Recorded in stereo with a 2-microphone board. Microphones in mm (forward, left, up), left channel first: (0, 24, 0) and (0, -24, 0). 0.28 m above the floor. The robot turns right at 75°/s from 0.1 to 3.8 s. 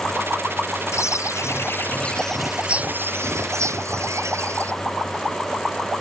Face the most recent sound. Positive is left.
turn(degrees=-75)